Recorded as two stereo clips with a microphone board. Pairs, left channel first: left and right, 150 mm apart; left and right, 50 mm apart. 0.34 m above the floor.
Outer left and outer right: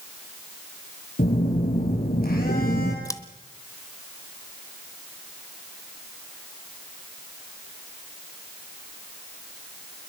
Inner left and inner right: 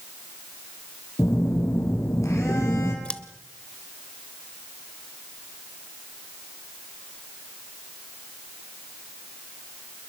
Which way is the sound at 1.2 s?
80° left.